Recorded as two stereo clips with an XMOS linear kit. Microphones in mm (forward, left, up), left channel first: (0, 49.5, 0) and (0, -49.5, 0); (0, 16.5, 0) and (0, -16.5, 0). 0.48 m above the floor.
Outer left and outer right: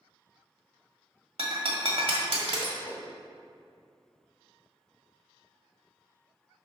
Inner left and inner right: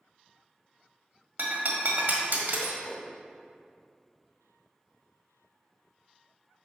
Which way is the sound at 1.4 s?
70° right (ahead or behind).